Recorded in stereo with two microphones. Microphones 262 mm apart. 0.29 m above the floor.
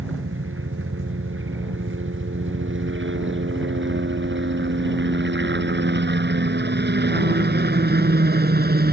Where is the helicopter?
50° right (ahead or behind); by 8.9 s 35° right (ahead or behind).